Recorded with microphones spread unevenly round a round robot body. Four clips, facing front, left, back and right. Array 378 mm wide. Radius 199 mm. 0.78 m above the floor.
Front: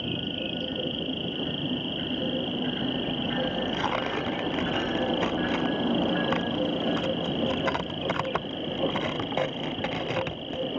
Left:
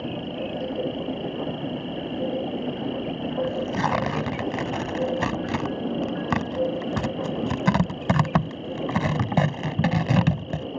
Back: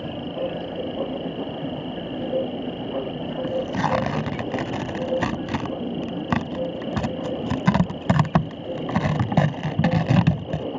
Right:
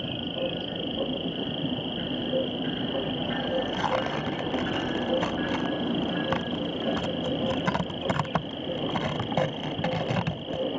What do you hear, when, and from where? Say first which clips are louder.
0.0 s an insect: left 1 dB, back 5 dB; 55° left
3.4 s tearing paper: left 2 dB, back 5 dB; 145° left